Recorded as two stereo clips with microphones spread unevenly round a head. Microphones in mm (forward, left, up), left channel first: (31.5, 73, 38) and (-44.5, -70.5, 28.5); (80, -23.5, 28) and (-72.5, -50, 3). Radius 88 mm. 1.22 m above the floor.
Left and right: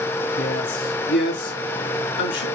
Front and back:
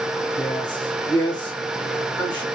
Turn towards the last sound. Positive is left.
turn(degrees=80)